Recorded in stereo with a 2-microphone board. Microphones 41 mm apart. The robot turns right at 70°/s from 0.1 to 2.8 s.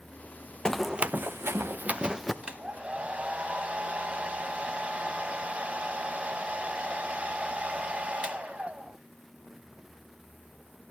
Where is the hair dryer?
30° right (ahead or behind), 0.7 m.